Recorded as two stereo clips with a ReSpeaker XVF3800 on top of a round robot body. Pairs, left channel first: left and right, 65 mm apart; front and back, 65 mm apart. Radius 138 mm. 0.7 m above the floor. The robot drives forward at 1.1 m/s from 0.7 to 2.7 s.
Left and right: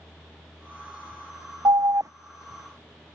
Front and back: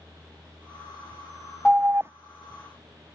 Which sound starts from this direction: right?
An alarm, at 1.6 s.